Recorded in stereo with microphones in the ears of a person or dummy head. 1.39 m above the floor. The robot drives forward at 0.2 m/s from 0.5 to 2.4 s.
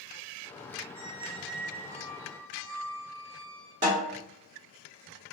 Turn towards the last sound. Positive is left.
turn(degrees=-35)  # may be behind; listen again after turning